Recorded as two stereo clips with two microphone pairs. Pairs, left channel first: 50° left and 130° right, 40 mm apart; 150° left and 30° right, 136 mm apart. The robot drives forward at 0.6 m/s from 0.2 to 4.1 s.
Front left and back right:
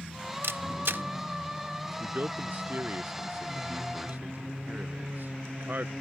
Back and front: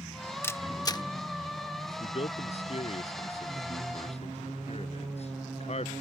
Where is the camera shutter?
135° right; by 1.0 s 150° right.